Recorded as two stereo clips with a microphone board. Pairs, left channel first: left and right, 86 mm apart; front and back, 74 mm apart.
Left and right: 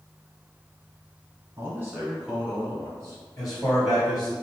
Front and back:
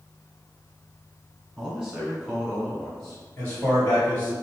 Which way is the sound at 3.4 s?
60° left.